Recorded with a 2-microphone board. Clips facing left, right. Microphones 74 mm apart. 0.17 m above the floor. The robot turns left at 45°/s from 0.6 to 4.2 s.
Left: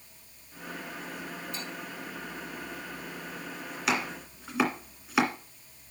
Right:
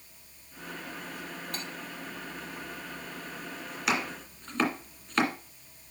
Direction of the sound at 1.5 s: 70° right (ahead or behind).